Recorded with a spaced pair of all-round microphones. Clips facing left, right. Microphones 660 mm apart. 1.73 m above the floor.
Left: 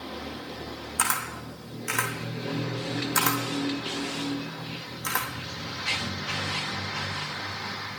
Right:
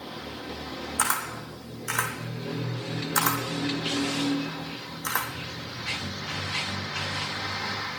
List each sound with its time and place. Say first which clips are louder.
1.0 s a camera shutter: right 1 dB; 50° left (ahead or behind), 2.5 m